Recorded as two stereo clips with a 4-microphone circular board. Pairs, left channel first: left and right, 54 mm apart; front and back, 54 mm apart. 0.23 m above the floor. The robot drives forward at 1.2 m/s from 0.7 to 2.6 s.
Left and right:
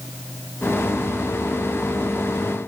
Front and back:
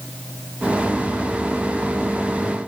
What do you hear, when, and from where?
Only background noise.